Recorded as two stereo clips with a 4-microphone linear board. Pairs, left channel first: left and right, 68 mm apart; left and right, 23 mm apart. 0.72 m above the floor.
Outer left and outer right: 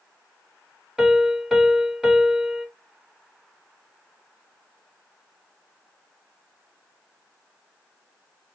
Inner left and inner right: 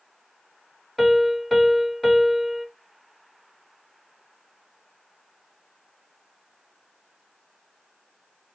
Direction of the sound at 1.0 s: 5° right (ahead or behind).